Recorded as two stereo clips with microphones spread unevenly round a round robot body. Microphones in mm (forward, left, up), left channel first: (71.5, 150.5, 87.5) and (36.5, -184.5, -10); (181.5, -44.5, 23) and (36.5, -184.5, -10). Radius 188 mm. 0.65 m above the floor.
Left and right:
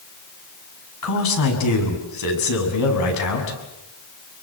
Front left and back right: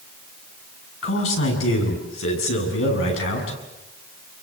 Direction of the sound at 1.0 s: 50° left.